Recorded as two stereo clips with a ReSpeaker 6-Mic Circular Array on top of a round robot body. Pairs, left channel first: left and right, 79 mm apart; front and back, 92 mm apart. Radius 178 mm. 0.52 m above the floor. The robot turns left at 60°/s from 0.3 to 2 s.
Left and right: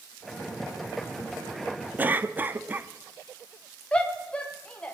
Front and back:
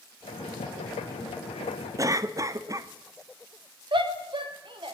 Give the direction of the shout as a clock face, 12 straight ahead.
6 o'clock.